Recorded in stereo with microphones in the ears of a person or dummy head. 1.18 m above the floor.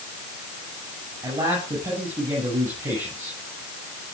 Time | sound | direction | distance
1.2 | a man speaking | 15° right (ahead or behind) | 8.5 m